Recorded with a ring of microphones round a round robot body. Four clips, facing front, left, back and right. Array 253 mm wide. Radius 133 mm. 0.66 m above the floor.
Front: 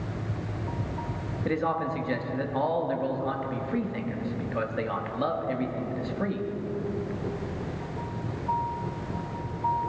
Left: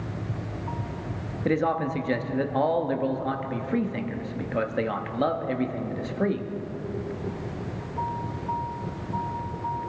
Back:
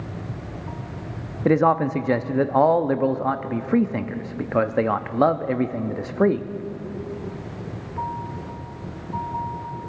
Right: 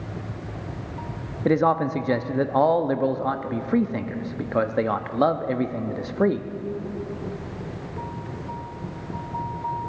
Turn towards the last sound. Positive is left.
turn(degrees=-155)